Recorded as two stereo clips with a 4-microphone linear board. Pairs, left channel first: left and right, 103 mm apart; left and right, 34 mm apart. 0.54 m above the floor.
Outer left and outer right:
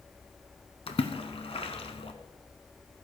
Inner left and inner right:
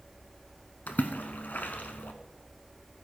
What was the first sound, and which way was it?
A splash, 65° left (ahead or behind).